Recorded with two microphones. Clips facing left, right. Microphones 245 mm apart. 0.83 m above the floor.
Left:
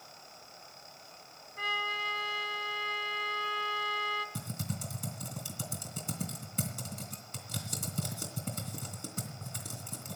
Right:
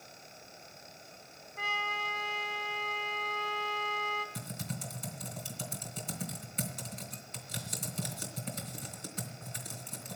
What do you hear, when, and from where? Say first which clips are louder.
1.6 s a trumpet: even; 40° left (ahead or behind), 2.5 m
4.3 s typing on a keyboard: left 2 dB; 50° left (ahead or behind), 3 m